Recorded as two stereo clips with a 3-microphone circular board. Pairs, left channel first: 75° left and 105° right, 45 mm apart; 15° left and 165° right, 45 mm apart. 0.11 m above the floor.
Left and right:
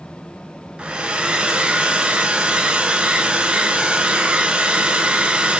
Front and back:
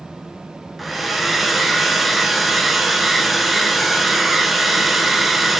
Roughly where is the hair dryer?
Right.